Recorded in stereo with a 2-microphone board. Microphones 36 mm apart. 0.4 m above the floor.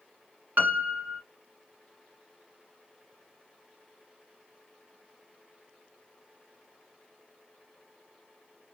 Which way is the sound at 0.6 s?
55° right (ahead or behind).